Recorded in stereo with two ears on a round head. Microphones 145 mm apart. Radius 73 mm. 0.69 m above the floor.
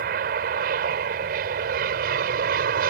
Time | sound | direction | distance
0.0 | an aircraft | 60° right (ahead or behind) | ?